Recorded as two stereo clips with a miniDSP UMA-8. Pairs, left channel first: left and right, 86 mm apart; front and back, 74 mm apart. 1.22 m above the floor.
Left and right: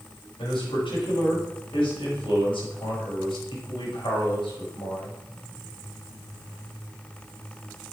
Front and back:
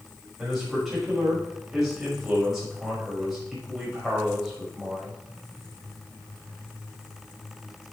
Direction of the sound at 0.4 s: 95° left.